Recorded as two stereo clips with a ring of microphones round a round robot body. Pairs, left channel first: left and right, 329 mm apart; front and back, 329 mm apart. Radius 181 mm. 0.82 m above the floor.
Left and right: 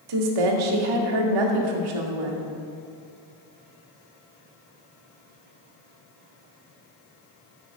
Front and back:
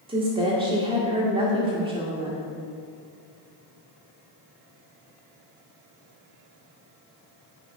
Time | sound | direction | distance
0.1 | a woman speaking | 105° right | 1.7 m